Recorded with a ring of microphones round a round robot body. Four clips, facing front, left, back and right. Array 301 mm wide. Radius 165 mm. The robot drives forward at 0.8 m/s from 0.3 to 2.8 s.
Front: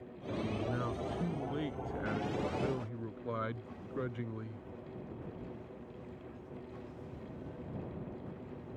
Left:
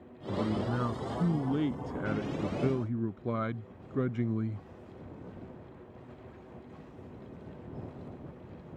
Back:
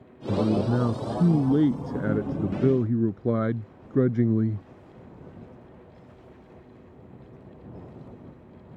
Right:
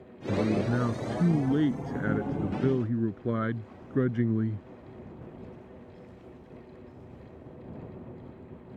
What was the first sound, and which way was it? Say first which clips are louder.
A man speaking: right 5 dB, back 13 dB; 160° right.